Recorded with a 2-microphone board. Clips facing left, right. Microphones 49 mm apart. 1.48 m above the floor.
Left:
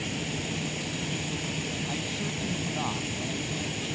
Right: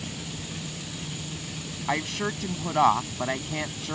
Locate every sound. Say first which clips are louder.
0.0 s running water: left 5 dB; 50° left (ahead or behind)
1.9 s a woman speaking: right 5 dB; 70° right (ahead or behind)